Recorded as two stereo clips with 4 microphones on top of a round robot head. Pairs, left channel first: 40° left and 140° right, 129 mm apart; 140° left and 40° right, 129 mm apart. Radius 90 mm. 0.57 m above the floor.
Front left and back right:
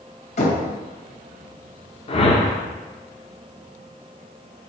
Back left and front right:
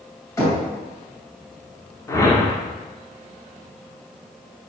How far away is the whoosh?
About 1.2 m.